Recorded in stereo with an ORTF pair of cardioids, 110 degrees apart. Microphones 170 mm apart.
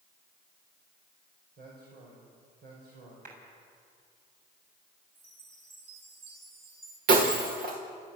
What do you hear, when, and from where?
1.6 s a man speaking: 65° right, 5.5 m
3.2 s a clap: 55° right, 7 m
5.2 s a chime: 35° right, 7.5 m
7.1 s breaking glass: 60° right, 5 m